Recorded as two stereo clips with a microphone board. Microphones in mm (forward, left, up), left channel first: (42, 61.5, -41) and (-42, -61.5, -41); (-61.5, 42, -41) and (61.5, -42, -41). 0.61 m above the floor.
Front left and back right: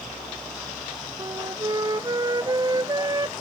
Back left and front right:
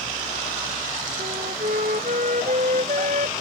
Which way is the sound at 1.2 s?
60° right.